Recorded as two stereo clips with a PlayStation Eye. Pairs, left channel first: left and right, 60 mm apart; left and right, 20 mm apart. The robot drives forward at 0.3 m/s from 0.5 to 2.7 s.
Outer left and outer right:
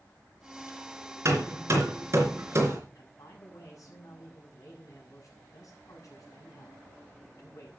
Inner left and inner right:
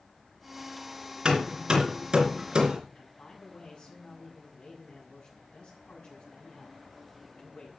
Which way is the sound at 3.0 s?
65° left (ahead or behind).